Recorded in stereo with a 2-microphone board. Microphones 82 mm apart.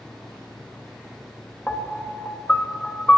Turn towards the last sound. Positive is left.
turn(degrees=15)  # may be behind; listen again after turning